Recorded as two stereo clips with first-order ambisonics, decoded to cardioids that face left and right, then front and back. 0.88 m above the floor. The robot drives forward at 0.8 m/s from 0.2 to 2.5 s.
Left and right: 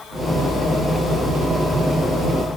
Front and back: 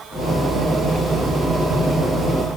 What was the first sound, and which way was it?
Only background noise.